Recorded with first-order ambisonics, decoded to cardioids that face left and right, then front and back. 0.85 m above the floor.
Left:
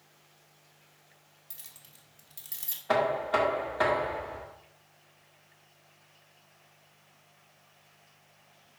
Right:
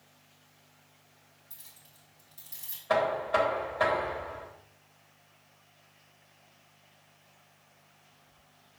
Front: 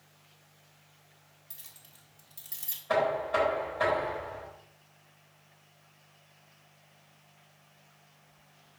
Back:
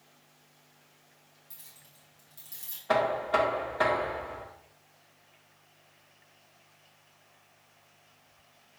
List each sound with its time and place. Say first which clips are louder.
1.5 s keys jangling: left 4 dB, front 2 dB; 75° left, 1.5 m
2.9 s knocking: even, back 1 dB; 130° left, 1.8 m